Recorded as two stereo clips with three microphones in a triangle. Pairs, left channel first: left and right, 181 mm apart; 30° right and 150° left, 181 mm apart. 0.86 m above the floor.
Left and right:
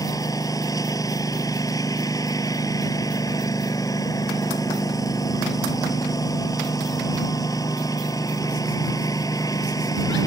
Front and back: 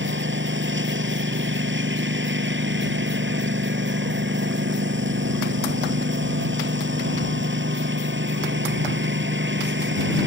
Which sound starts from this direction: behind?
A lawn mower, at 0.0 s.